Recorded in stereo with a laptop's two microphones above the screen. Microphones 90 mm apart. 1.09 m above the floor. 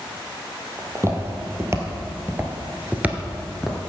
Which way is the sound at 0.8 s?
30° right (ahead or behind).